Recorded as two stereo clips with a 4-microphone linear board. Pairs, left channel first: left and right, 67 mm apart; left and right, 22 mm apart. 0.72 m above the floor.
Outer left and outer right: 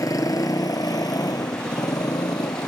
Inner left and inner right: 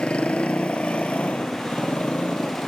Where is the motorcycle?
60° left (ahead or behind); by 2.7 s 75° left (ahead or behind).